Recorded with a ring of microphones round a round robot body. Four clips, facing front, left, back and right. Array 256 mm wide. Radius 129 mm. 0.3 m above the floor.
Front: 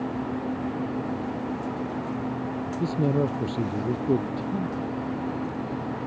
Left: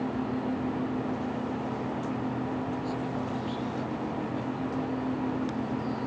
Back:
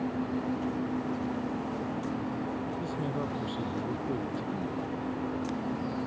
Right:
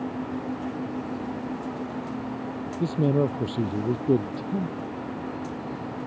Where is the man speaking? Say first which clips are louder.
Right 9 dB, front 9 dB; 55° right; by 4.8 s 70° right.